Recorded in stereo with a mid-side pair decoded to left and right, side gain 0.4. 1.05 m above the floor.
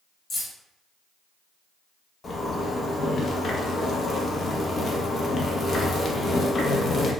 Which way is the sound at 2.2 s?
50° left.